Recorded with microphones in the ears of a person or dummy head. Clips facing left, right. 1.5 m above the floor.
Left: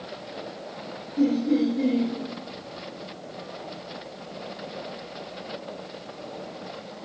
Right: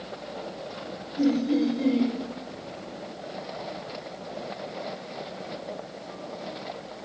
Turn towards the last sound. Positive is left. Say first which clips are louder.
# left 1 dB
turn(degrees=15)  # may be behind; listen again after turning